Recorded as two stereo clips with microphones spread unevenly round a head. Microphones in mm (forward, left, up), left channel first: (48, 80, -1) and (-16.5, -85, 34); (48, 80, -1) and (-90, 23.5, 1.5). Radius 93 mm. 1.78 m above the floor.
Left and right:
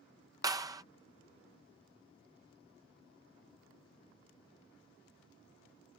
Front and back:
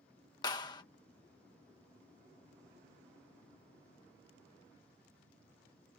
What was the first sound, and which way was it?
A clap, 45° right.